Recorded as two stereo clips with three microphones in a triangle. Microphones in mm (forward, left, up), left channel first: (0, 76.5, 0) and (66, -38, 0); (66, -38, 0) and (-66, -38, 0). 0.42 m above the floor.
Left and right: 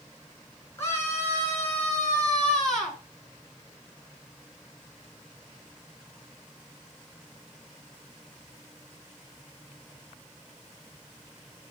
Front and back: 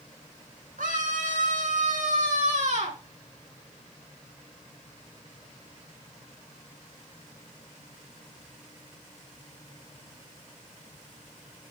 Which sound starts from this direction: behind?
A scream, at 0.8 s.